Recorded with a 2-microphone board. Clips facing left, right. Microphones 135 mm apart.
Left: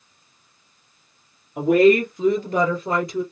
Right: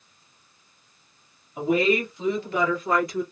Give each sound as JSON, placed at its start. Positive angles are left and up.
{"t": 1.6, "sound": "a woman speaking", "side_deg": 60, "distance_m": 2.0}